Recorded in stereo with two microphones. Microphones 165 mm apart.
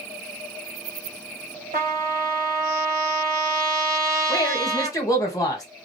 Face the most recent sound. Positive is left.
turn(degrees=20)  # may be behind; listen again after turning